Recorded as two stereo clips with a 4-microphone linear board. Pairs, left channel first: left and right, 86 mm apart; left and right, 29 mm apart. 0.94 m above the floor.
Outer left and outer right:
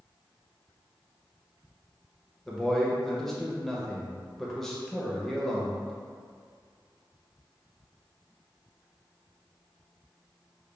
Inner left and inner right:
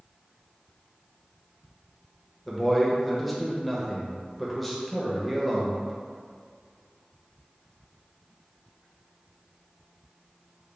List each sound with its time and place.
2.5 s a man speaking: 5° left (ahead or behind), 0.6 m